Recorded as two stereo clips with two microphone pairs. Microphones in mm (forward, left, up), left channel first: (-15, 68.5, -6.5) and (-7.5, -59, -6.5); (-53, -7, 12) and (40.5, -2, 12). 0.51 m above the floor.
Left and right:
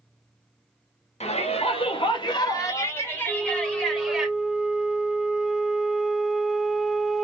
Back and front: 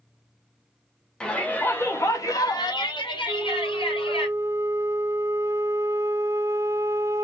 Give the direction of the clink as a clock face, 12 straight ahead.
No clink in this recording.